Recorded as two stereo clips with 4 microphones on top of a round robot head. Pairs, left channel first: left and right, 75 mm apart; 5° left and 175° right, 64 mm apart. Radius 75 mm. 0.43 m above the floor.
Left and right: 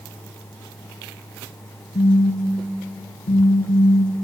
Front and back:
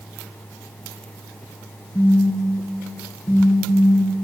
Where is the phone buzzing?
85° left, 2 m.